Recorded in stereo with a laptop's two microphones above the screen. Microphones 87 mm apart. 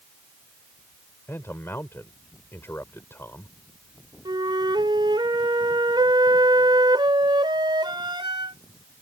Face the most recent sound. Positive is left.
turn(degrees=-65)  # may be behind; listen again after turning